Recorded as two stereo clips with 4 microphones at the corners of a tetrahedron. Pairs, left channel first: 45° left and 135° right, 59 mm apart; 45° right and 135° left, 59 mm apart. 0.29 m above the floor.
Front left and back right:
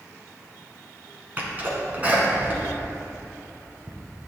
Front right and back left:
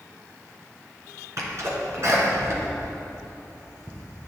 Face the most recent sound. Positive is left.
turn(degrees=165)